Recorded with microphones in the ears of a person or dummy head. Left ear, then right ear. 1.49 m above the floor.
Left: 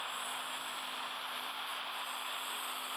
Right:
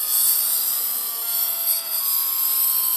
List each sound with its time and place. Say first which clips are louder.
0.0 s a lawn mower: right 11 dB; 75° right (ahead or behind); by 3.0 s 65° right (ahead or behind)